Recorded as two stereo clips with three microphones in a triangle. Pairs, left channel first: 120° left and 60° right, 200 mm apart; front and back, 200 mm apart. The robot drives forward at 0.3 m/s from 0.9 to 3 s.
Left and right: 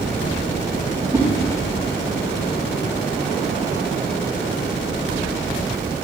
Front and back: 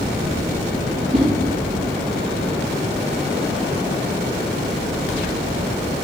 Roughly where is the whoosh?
Behind right.